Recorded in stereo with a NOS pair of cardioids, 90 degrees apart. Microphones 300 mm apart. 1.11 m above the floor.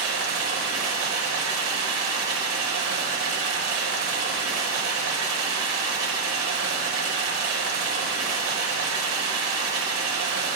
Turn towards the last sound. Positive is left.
turn(degrees=-65)